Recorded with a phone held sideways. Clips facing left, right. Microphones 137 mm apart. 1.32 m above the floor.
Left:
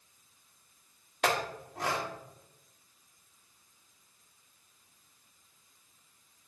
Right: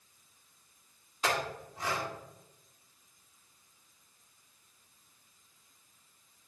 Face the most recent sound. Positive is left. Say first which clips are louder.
# left 2 dB
turn(degrees=75)  # may be behind; listen again after turning